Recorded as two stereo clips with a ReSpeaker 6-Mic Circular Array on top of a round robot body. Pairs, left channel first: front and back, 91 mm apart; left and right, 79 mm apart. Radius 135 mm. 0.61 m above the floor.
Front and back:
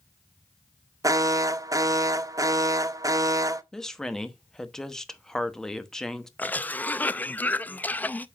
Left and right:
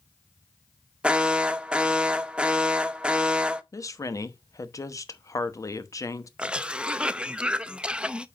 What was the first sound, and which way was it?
An alarm, 160° right.